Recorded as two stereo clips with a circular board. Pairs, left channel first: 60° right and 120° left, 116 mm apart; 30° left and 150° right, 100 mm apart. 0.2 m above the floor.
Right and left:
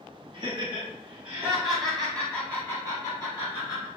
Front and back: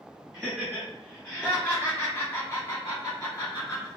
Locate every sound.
0.3 s laughter: 125° left, 1.4 m; by 3.9 s 20° right, 1.9 m